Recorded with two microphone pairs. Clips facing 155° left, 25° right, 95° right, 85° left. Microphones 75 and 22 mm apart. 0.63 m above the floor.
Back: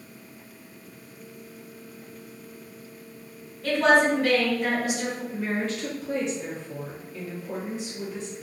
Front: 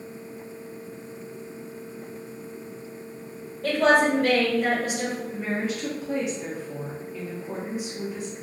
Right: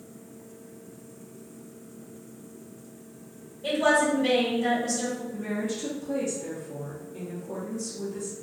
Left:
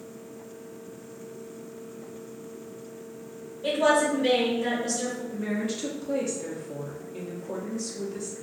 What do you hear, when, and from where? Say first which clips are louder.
3.6 s a woman speaking: even, even; 15° left, 1.5 m
5.3 s a woman speaking: even, left 1 dB; 50° left, 0.7 m